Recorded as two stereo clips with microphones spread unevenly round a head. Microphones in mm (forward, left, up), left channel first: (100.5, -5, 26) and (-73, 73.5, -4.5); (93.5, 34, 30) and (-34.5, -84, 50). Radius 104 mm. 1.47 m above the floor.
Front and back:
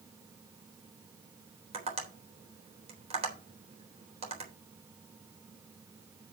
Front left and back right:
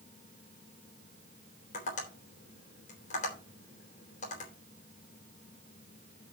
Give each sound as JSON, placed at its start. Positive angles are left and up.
{"t": 1.7, "sound": "tapping", "azimuth_deg": 95, "distance_m": 3.5}